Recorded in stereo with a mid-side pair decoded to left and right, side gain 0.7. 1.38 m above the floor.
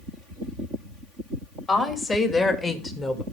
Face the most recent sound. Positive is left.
turn(degrees=20)